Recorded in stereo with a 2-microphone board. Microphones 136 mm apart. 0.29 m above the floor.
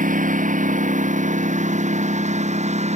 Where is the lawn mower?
75° right (ahead or behind); by 3.0 s 55° right (ahead or behind).